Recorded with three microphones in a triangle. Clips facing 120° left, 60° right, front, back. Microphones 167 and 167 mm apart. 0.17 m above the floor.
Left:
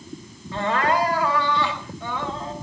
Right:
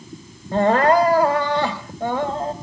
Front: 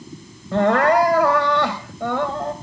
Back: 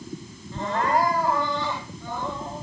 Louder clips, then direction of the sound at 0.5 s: Right 7 dB, front 9 dB; 20° right.